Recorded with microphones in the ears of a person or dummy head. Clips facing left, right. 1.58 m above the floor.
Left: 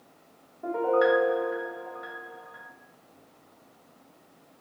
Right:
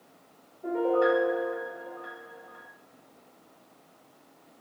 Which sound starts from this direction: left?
A piano, at 0.6 s.